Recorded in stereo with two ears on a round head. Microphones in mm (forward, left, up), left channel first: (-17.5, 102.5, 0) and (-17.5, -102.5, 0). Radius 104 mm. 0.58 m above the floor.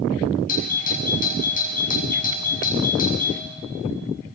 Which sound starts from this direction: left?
A doorbell, at 0.5 s.